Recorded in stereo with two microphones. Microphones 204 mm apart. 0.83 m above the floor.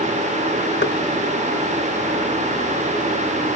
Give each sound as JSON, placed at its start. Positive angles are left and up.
{"t": 0.8, "sound": "knocking", "side_deg": 65}